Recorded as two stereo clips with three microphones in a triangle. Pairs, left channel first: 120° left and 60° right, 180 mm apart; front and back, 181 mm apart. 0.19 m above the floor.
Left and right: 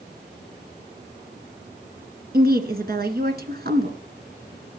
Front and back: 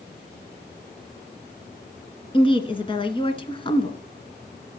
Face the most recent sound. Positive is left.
turn(degrees=-55)